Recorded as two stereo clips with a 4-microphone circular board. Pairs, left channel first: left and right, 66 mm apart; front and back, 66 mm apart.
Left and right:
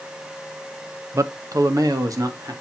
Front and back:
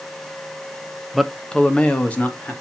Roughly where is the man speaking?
Right.